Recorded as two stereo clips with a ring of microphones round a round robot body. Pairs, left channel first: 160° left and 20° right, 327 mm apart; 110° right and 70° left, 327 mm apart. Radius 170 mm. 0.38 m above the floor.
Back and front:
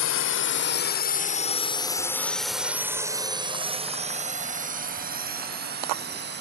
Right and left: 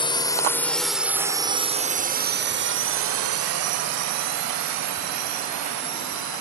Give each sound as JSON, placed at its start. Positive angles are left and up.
{"t": 0.0, "sound": "a drone", "azimuth_deg": 180}